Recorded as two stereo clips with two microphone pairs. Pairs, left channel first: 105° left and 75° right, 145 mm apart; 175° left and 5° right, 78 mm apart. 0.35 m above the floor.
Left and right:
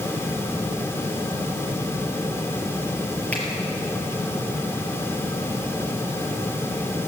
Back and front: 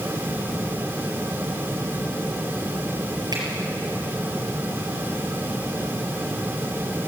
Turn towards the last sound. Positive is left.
turn(degrees=25)